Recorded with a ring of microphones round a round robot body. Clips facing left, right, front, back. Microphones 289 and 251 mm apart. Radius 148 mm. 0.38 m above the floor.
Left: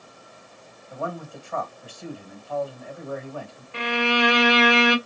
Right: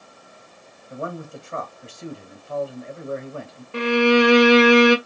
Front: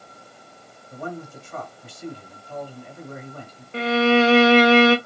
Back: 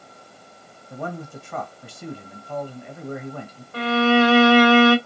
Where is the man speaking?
155° right, 2 m.